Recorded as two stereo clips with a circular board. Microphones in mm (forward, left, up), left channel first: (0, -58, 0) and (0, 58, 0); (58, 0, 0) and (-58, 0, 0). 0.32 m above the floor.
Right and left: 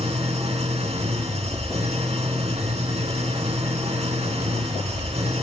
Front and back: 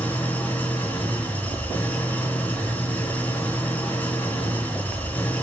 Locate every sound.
0.0 s an engine running: 75° left, 3 m